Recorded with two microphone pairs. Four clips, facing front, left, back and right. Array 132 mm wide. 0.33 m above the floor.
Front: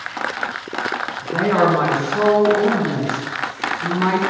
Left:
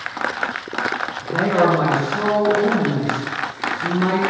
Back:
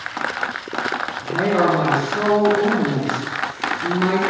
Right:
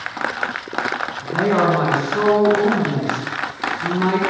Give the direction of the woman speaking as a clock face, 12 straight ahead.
1 o'clock.